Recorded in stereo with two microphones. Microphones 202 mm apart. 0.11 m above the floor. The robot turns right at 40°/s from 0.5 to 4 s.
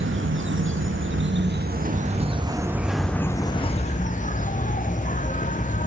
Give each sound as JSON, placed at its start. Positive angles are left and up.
{"t": 0.0, "sound": "an insect", "azimuth_deg": -100, "distance_m": 0.9}